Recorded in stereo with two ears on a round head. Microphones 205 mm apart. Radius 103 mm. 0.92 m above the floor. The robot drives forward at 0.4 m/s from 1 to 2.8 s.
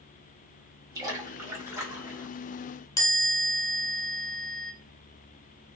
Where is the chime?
15° left (ahead or behind), 0.7 m.